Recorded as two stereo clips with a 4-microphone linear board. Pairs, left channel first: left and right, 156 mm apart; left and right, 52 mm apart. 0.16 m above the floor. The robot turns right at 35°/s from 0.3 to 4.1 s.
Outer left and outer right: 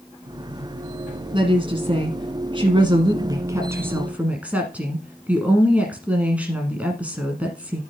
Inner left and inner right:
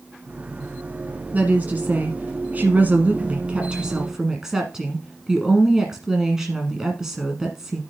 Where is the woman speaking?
115° right, 1.2 m; by 7.8 s 15° right, 1.2 m.